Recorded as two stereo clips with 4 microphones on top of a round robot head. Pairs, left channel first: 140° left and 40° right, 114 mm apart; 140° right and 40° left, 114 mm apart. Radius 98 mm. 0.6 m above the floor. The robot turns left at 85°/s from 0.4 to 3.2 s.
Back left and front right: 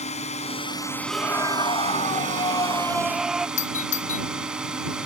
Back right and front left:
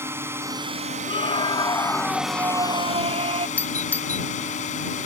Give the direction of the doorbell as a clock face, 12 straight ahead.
7 o'clock.